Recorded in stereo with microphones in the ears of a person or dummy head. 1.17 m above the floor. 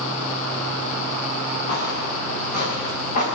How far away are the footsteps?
About 9.5 m.